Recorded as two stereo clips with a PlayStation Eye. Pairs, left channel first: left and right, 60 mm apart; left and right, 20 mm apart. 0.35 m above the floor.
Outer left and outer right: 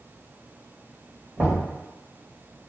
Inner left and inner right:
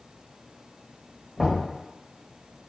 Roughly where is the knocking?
Right.